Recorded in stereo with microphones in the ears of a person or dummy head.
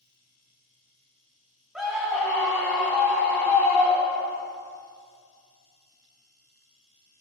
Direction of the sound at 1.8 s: 5° right (ahead or behind).